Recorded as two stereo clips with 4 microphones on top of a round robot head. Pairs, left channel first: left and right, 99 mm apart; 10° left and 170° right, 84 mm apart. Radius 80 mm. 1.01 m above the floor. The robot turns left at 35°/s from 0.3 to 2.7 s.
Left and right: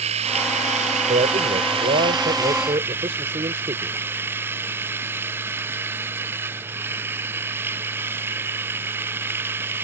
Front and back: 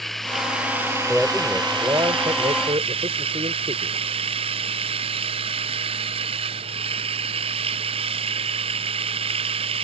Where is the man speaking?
80° right; by 4.0 s 135° right.